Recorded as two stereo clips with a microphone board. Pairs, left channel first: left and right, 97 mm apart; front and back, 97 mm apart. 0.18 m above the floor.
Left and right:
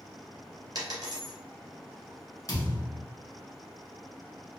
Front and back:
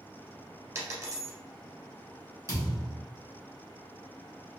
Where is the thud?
135° left, 1.1 m.